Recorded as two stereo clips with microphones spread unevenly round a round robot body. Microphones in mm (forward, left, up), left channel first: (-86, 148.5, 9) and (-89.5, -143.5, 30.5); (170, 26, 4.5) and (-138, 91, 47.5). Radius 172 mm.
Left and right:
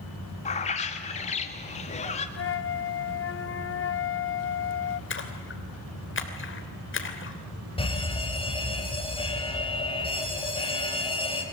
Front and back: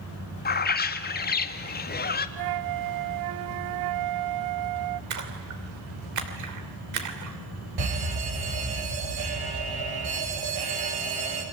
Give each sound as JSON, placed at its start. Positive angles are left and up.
{"t": 0.5, "sound": "a bird", "azimuth_deg": 30, "distance_m": 1.4}
{"t": 2.4, "sound": "a flute", "azimuth_deg": 140, "distance_m": 0.7}
{"t": 5.1, "sound": "a splash", "azimuth_deg": 135, "distance_m": 3.0}
{"t": 7.8, "sound": "an alarm", "azimuth_deg": 160, "distance_m": 4.5}